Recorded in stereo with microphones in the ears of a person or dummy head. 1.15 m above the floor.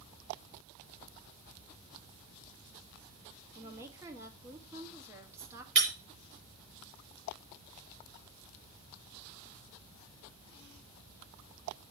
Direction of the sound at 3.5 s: 15° right (ahead or behind).